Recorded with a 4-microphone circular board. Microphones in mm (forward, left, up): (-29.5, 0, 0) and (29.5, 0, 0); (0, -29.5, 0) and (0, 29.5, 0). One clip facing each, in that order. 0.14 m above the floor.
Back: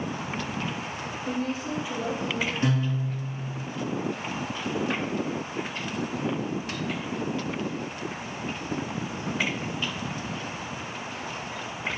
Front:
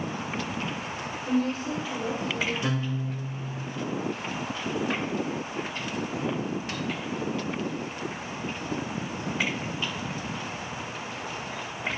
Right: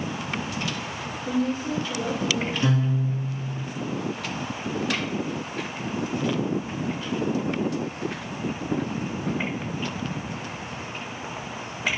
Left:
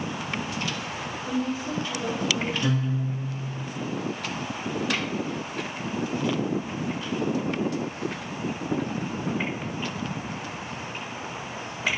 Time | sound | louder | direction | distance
1.2 | a woman speaking | front 4 dB, right 3 dB | 115° right | 2.5 m
2.6 | a guitar | back 3 dB, right 2 dB | 140° right | 2.5 m